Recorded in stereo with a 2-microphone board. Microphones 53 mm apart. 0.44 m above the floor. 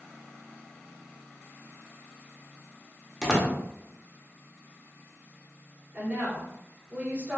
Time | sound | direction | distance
3.2 | a door slam | 5° right (ahead or behind) | 0.7 m
5.9 | a woman speaking | 25° right (ahead or behind) | 1.7 m